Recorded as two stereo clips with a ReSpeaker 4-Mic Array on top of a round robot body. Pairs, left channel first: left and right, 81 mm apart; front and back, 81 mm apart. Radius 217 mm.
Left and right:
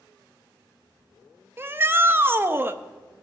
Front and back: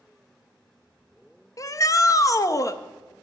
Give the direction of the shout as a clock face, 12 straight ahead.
1 o'clock.